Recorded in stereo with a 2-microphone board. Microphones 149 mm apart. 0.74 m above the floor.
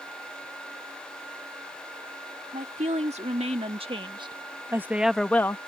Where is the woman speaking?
50° right (ahead or behind); by 5.6 s 20° left (ahead or behind).